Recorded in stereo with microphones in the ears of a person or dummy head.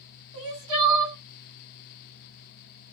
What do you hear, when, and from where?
0.3 s crying: 30° right (ahead or behind), 1.7 m